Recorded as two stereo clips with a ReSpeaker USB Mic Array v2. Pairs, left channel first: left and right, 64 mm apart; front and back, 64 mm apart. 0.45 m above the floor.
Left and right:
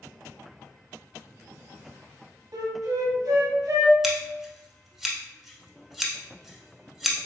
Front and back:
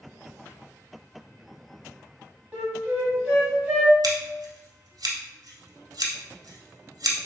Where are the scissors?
175° right, 0.8 m.